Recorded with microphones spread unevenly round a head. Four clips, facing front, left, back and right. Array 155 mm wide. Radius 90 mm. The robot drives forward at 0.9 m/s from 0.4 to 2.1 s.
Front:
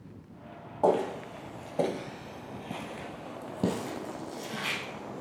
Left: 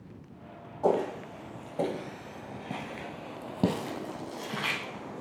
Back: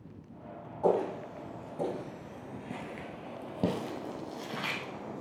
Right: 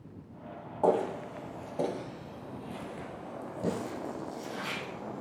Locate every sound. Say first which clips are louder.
0.8 s footsteps: even, front 2 dB; 25° right, 2 m; by 5.2 s 105° left, 3 m